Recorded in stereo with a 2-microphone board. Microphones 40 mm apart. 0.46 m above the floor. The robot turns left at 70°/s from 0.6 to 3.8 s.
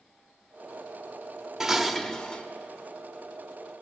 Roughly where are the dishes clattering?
Behind.